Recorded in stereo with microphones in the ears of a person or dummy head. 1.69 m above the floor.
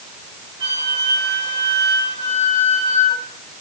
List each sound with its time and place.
0.6 s a flute: 20° right (ahead or behind), 1.4 m